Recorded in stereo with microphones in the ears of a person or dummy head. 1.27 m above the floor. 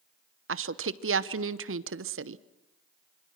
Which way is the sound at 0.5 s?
60° right (ahead or behind).